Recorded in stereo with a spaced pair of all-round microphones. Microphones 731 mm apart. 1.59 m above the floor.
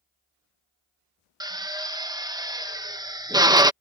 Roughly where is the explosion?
I don't hear an explosion.